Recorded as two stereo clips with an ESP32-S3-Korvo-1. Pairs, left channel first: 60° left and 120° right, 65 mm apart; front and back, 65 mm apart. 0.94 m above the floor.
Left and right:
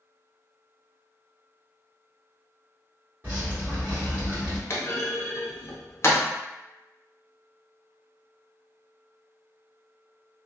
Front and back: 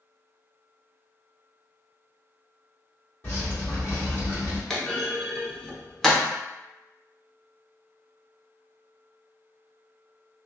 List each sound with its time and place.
3.2 s dripping: 55° right, 1.5 m
4.7 s a clunk: 80° left, 0.6 m